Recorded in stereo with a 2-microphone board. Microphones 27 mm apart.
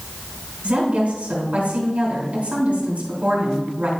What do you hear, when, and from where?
0.6 s a woman speaking: 60° right (ahead or behind), 3.5 m